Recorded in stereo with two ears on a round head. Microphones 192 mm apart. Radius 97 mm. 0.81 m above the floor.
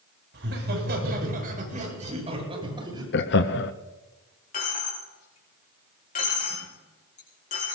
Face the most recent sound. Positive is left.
turn(degrees=35)  # may be behind; listen again after turning